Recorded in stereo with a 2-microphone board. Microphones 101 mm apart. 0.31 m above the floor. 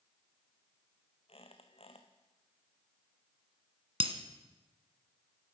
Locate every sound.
1.3 s a squeak: 70° left (ahead or behind), 1.6 m
4.0 s breaking glass: 70° right (ahead or behind), 1.4 m